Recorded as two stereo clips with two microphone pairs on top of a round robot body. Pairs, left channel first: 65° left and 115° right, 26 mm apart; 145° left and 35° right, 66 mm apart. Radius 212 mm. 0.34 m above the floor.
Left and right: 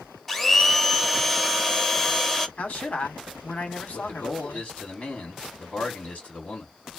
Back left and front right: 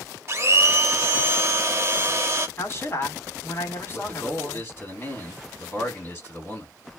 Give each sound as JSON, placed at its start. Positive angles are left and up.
{"t": 0.3, "sound": "a blender", "azimuth_deg": -25, "distance_m": 1.1}
{"t": 2.6, "sound": "a man speaking", "azimuth_deg": 90, "distance_m": 1.5}
{"t": 3.9, "sound": "a man speaking", "azimuth_deg": 90, "distance_m": 1.7}